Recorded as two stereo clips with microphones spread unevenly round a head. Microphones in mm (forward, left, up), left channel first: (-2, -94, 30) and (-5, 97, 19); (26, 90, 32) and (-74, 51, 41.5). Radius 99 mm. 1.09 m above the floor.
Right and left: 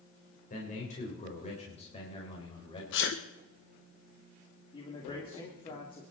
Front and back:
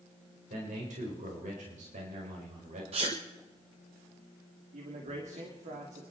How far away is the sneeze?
About 1.0 m.